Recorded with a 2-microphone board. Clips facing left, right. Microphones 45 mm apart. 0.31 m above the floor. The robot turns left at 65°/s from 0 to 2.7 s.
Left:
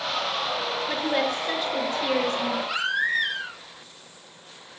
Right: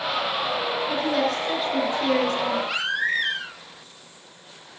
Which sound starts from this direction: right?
A baby crying, at 2.7 s.